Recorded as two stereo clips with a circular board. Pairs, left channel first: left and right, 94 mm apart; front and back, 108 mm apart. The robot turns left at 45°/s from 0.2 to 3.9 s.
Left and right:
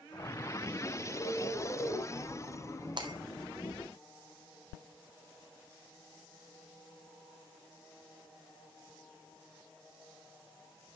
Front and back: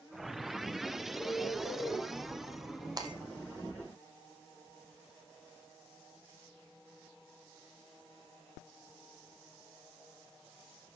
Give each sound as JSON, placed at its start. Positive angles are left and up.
{"t": 1.2, "sound": "a bird", "azimuth_deg": 120, "distance_m": 5.0}
{"t": 3.0, "sound": "breaking glass", "azimuth_deg": -125, "distance_m": 1.8}